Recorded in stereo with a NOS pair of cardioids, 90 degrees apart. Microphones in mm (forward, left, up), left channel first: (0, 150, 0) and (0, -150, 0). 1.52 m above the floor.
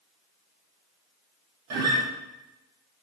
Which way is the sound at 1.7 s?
60° right.